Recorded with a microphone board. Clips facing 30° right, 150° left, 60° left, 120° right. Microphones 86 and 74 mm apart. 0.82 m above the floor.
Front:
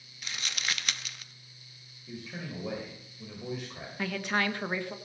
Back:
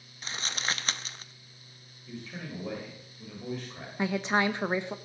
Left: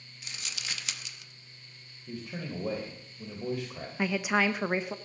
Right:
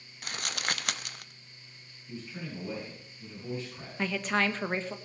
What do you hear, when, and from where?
0.2 s crumpling: 155° right, 0.6 m
2.1 s a man speaking: 55° left, 3.5 m
4.0 s a woman speaking: 125° left, 0.8 m